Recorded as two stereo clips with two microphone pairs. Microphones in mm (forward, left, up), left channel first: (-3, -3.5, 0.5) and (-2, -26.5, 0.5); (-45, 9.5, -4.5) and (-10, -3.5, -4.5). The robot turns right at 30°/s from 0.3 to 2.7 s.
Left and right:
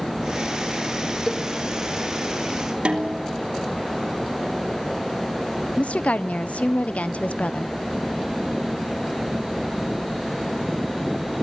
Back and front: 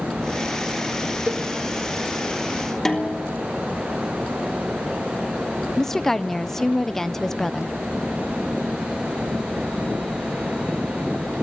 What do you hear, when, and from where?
1.3 s a cowbell: 10° left, 2.5 m; by 1.5 s 15° left, 2.5 m
2.9 s a snare drum: 125° right, 3 m
5.8 s a woman speaking: 85° left, 0.7 m